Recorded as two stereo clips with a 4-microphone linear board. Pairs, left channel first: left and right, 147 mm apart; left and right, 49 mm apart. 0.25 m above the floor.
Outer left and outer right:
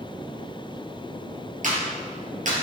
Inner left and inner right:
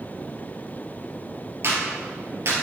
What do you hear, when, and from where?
1.6 s a clap: 60° right (ahead or behind), 4 m